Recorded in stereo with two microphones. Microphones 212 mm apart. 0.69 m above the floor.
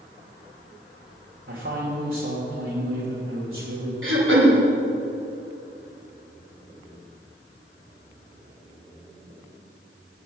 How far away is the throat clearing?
About 1.8 m.